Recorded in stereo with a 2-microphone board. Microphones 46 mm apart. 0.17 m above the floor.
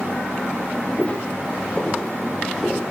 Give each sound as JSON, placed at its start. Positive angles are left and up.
{"t": 1.0, "sound": "footsteps", "side_deg": 35, "distance_m": 1.9}